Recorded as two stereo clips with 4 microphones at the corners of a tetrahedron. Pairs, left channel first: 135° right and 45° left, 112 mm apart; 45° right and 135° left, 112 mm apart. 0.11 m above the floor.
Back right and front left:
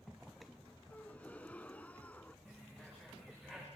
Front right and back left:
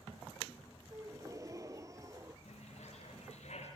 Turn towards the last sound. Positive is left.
turn(degrees=-40)